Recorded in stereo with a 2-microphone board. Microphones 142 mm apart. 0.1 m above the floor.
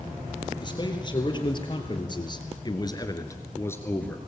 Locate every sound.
0.6 s a man speaking: 30° left (ahead or behind), 3 m; by 4.2 s 10° left (ahead or behind), 1.9 m